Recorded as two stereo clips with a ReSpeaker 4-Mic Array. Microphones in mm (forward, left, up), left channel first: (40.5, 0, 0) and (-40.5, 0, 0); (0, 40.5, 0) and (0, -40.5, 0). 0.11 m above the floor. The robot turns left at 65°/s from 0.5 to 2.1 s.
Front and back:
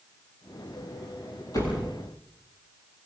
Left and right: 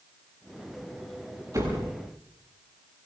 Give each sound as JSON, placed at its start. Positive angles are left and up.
{"t": 1.5, "sound": "a door slam", "azimuth_deg": -45, "distance_m": 9.5}